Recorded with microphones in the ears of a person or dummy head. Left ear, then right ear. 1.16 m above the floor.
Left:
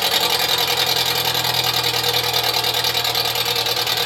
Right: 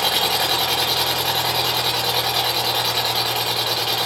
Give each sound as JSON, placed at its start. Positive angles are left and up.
{"t": 0.0, "sound": "an engine running", "side_deg": 75, "distance_m": 1.6}